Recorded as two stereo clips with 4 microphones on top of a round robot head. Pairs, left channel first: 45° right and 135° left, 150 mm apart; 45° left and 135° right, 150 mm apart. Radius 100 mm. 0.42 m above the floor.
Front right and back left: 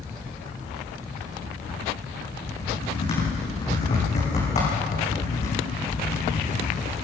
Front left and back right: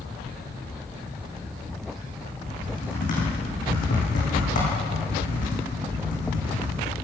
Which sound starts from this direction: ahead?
Typing on a keyboard, at 2.5 s.